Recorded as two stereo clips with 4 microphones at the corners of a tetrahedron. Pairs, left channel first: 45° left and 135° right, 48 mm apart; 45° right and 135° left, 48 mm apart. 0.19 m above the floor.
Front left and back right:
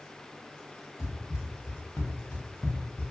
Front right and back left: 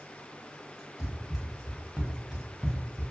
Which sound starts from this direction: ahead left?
Running footsteps, at 1.0 s.